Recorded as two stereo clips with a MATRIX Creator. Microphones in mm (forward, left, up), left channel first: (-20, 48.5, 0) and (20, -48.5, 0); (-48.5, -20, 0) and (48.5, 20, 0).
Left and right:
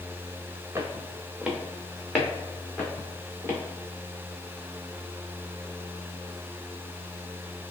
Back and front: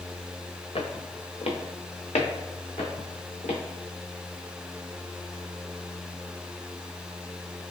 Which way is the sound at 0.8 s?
135° right.